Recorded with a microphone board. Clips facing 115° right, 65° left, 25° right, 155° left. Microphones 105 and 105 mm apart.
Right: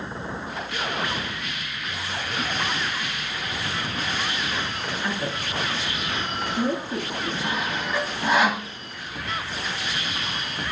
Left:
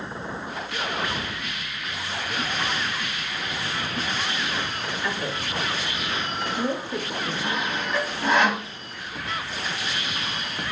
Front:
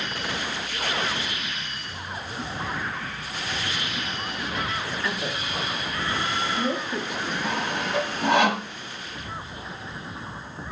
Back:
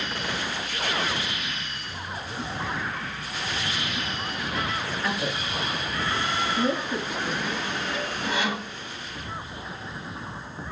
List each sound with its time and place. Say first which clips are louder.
5.0 s a woman speaking: even, back 1 dB; 145° right, 4 m
7.4 s sawing: left 1 dB, front 3 dB; 25° right, 0.7 m